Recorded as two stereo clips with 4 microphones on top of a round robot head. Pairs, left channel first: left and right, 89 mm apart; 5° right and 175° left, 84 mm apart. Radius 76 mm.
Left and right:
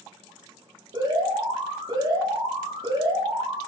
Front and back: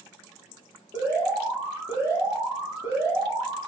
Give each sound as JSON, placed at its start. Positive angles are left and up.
{"t": 0.9, "sound": "an alarm", "azimuth_deg": -120, "distance_m": 10.0}